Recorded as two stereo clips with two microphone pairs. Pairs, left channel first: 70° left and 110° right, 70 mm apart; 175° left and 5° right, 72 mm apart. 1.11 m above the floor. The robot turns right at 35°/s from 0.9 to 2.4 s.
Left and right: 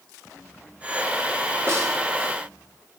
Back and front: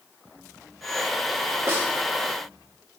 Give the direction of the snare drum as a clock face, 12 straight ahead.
2 o'clock.